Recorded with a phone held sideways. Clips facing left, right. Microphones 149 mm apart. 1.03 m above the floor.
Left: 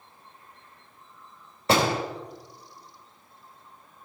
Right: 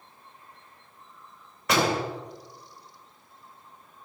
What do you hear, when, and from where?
1.7 s a door slam: 30° left (ahead or behind), 3.5 m